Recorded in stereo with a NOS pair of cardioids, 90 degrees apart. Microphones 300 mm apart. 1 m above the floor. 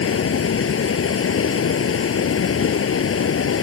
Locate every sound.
0.0 s running water: 45° left